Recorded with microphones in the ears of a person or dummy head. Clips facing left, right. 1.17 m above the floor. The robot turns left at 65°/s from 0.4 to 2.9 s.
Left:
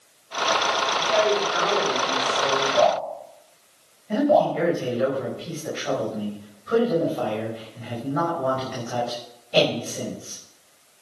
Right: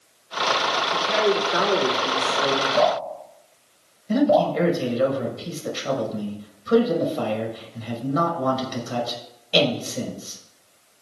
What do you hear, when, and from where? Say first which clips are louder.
0.9 s a woman speaking: even; 30° right, 3 m; by 2.7 s 140° right, 3 m
2.8 s dripping: left 2 dB; 35° right (ahead or behind), 7 m; by 4.5 s 45° right (ahead or behind), 7 m
4.1 s a man speaking: right 1 dB; 50° right (ahead or behind), 5.5 m